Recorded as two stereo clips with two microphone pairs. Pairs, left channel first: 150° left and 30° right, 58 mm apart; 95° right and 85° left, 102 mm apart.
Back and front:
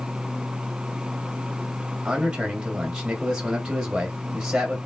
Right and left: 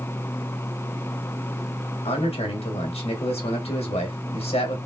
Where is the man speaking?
110° right, 1.3 m.